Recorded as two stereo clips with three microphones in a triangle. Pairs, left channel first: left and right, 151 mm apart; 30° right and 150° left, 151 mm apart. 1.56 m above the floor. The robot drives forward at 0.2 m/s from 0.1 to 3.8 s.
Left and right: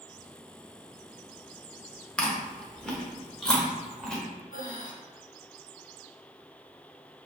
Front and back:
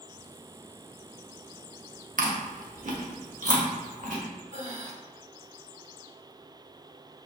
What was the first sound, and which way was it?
Chewing, 170° left.